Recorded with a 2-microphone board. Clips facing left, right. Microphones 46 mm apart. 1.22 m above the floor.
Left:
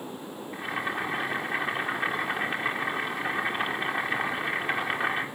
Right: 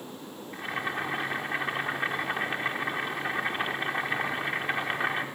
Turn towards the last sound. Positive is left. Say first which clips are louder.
# left 1 dB
turn(degrees=5)  # may be behind; listen again after turning